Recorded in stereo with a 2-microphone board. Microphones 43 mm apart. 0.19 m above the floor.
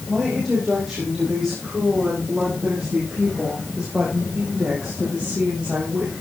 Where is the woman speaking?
5° right (ahead or behind), 6.5 m; by 6.1 s 30° right (ahead or behind), 7.5 m.